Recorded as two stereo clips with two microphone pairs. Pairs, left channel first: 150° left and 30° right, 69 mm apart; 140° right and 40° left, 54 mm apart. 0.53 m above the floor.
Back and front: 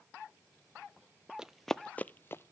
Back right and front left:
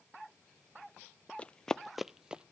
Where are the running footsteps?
100° right, 0.6 m; by 2.5 s 105° left, 0.7 m.